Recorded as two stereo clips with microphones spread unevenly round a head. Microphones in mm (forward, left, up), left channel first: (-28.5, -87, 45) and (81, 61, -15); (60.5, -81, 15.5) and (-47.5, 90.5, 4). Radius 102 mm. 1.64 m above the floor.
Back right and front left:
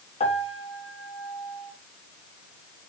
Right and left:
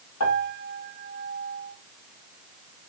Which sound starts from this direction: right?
A piano, at 0.2 s.